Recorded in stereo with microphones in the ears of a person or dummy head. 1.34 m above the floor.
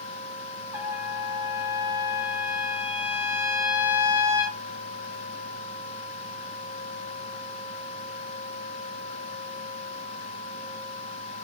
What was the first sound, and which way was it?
A trumpet, 10° right (ahead or behind).